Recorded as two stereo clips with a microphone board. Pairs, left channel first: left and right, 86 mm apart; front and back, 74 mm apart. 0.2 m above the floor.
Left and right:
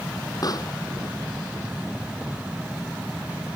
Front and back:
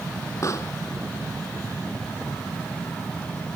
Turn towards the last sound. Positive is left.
turn(degrees=45)